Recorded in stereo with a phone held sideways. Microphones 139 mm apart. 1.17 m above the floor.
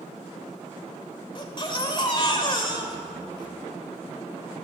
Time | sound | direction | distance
1.4 | a baby crying | 35° left (ahead or behind) | 1.6 m